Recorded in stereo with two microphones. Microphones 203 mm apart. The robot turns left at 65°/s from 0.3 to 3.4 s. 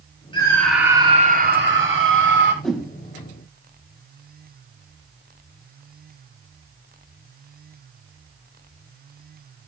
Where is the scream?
25° left, 5 m; by 2.5 s 120° right, 5 m.